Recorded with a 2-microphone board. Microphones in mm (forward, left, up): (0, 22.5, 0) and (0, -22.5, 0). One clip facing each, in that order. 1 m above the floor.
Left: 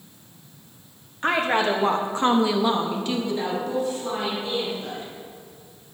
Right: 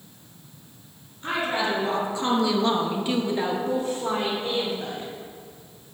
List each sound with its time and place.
1.2 s a woman speaking: 75° left (ahead or behind), 1.7 m; by 5.1 s 55° right (ahead or behind), 3 m